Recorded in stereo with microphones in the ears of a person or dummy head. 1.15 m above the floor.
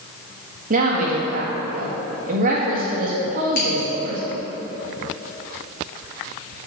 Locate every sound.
0.7 s a woman speaking: 40° right (ahead or behind), 1.8 m
3.5 s scissors: 50° left (ahead or behind), 3 m